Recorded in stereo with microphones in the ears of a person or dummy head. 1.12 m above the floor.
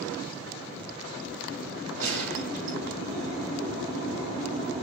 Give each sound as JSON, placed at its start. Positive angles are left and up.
{"t": 2.0, "sound": "a gunshot", "side_deg": -80, "distance_m": 8.0}